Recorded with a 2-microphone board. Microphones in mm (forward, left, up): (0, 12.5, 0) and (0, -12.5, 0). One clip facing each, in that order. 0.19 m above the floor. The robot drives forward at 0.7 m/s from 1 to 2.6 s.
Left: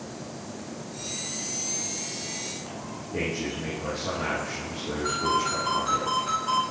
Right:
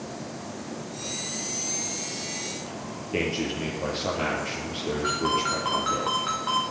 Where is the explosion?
No explosion in this recording.